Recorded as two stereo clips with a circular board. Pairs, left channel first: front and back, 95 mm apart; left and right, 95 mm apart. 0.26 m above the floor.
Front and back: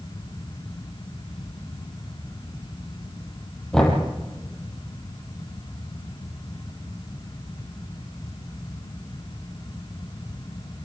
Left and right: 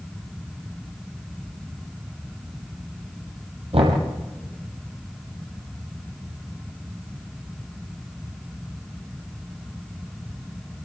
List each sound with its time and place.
3.7 s knocking: 80° right, 6.5 m